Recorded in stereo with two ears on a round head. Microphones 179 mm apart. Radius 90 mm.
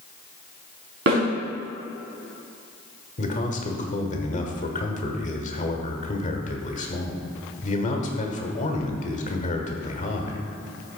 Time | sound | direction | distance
1.1 | a snare drum | 60° right (ahead or behind) | 3.5 m
3.2 | a man speaking | 40° left (ahead or behind) | 1.4 m